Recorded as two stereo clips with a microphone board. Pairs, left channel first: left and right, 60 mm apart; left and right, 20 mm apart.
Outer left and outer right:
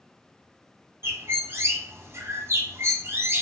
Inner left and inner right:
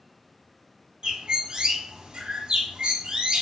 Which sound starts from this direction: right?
A bird, at 1.0 s.